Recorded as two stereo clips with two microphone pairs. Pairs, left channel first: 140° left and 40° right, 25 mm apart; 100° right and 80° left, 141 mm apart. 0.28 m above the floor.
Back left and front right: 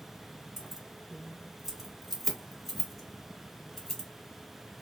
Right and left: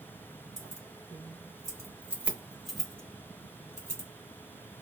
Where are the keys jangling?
35° left, 1.3 m; by 4.1 s 155° right, 1.2 m.